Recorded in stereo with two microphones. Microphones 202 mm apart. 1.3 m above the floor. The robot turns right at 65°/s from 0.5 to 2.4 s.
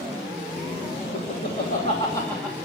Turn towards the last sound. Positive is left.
turn(degrees=5)  # may be behind; listen again after turning